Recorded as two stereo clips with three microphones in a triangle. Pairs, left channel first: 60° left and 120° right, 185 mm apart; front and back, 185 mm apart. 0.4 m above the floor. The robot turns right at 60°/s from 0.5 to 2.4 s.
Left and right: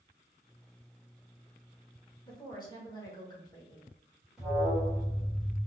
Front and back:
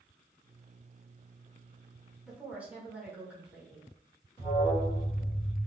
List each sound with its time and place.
2.2 s a woman speaking: 95° left, 1.0 m; by 3.9 s 105° left, 1.0 m
4.4 s an alarm: 35° right, 1.6 m